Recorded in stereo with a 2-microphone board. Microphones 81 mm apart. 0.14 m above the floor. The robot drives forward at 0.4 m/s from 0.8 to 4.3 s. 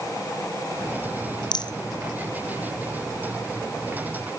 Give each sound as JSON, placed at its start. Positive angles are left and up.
{"t": 1.5, "sound": "a rattle", "side_deg": 80, "distance_m": 0.5}